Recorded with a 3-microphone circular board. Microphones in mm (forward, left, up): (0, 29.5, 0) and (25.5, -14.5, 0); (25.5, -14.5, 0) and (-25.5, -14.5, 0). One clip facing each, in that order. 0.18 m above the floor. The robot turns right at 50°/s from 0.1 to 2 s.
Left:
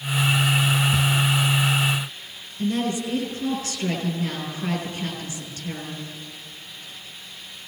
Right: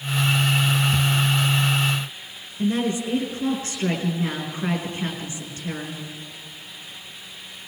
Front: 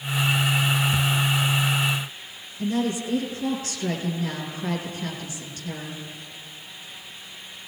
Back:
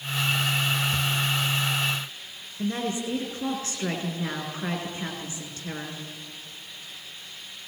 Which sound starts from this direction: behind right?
A woman speaking, at 2.6 s.